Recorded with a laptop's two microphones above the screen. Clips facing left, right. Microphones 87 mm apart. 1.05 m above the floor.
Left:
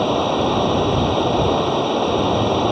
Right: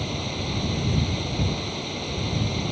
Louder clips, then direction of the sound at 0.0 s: Left 14 dB; 60° left (ahead or behind).